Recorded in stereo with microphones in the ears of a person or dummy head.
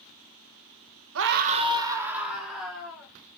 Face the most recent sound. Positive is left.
turn(degrees=5)  # may be behind; listen again after turning